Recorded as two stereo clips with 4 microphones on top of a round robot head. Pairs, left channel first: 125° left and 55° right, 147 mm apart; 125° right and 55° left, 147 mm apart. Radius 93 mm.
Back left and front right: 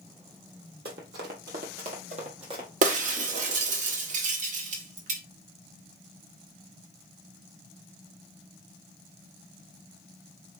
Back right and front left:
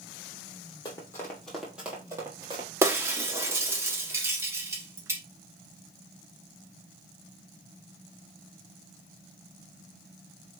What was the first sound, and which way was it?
Running footsteps, 65° right.